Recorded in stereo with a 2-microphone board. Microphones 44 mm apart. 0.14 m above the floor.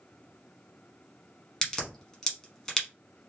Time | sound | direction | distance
1.6 | a crack | 15° left (ahead or behind) | 1.1 m